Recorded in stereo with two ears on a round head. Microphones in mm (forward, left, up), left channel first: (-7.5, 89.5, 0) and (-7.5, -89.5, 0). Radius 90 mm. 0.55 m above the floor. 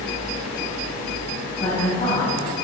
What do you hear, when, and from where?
1.6 s a woman speaking: 35° left (ahead or behind), 4 m